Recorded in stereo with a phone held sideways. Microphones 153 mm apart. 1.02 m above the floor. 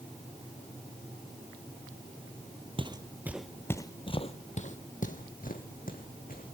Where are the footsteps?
35° right (ahead or behind), 1.2 m; by 6.5 s 75° left (ahead or behind), 3.5 m.